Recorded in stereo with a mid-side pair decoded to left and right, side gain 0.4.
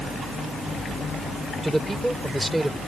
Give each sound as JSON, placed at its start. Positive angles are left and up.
{"t": 1.6, "sound": "a man speaking", "azimuth_deg": -5}